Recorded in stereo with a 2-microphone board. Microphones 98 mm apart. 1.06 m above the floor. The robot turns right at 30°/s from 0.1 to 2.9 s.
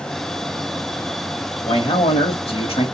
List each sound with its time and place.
1.6 s a man speaking: 60° left, 1.7 m; by 2.9 s 100° left, 1.7 m